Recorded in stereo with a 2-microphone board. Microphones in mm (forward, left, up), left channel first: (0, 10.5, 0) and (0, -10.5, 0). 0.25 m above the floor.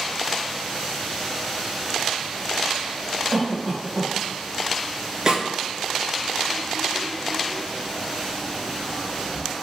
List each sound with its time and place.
3.3 s a cough: 25° left (ahead or behind), 1.0 m
5.3 s a snare drum: 35° right (ahead or behind), 0.6 m